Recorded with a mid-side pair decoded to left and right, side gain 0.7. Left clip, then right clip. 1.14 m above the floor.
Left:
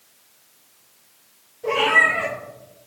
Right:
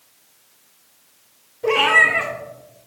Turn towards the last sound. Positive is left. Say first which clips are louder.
# right 2 dB
turn(degrees=-35)